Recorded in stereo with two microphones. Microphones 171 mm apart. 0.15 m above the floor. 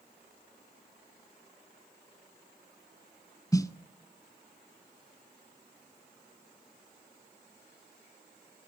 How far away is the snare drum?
About 0.6 m.